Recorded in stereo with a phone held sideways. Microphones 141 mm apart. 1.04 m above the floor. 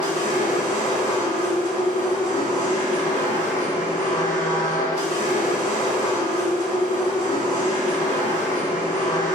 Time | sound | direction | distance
0.0 | a machine running | 65° left (ahead or behind) | 1.0 m